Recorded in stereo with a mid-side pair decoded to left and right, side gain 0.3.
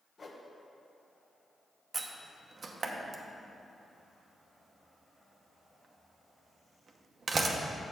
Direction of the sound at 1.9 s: 55° right.